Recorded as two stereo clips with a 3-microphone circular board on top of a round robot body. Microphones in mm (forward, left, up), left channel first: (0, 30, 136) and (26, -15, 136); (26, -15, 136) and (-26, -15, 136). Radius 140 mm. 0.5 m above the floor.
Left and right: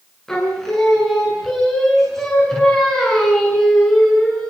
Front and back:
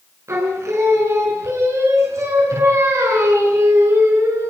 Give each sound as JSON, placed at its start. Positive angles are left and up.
{"t": 0.3, "sound": "singing", "azimuth_deg": -160, "distance_m": 7.0}